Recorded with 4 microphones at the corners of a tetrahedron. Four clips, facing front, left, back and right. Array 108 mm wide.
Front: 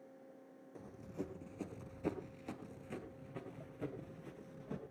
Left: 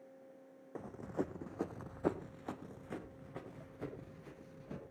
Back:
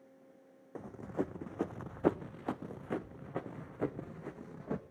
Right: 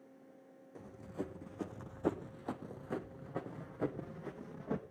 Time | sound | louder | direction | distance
0.8 | running footsteps | left 4 dB, back 9 dB | 135° left | 1.2 m